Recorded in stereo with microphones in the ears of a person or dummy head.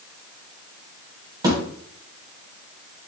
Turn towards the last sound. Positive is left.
turn(degrees=-20)  # may be behind; listen again after turning